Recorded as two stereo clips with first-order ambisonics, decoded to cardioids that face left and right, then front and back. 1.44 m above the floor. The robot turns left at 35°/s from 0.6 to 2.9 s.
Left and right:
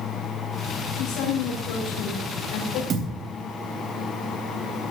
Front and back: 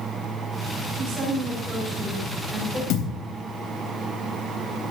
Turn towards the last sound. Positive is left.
turn(degrees=-30)